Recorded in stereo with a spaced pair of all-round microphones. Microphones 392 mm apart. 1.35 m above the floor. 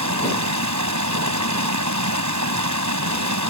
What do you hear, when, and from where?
0.0 s running water: 45° right (ahead or behind)